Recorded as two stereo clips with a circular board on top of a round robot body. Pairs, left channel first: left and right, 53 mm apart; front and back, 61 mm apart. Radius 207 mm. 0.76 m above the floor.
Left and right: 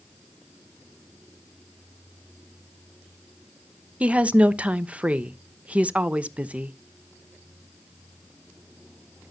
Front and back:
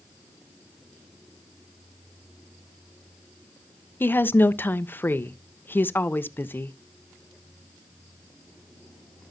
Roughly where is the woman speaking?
Ahead right.